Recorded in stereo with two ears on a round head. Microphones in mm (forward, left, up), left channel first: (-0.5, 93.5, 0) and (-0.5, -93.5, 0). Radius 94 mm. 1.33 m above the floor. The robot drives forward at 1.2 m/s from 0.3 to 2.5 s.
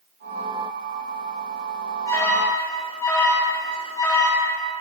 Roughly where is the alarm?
Centre.